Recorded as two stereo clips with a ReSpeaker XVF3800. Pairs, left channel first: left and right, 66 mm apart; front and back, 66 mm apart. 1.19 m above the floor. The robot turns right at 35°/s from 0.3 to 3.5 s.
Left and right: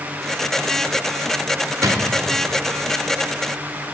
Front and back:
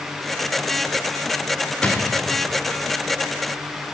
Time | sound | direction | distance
1.8 | a drawer | 70° right | 1.2 m